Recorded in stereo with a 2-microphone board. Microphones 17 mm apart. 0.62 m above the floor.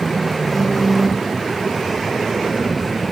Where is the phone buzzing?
15° left (ahead or behind), 1.5 m.